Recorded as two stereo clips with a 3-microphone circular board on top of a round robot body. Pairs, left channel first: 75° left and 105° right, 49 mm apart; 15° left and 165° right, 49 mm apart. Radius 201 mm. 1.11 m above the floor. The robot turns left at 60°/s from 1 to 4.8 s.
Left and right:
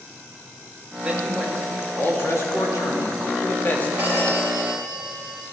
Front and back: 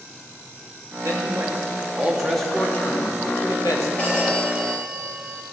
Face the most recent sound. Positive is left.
turn(degrees=-95)